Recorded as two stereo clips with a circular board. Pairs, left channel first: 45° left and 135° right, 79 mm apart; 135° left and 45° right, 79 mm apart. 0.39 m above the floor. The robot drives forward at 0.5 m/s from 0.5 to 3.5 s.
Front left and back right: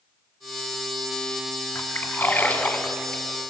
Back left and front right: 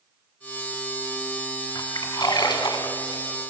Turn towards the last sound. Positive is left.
turn(degrees=125)